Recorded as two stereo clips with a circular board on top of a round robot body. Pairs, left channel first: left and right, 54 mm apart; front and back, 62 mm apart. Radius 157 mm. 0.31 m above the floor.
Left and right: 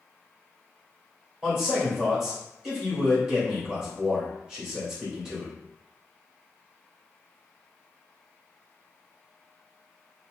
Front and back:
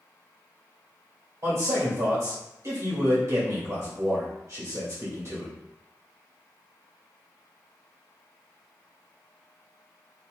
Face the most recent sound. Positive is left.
turn(degrees=-170)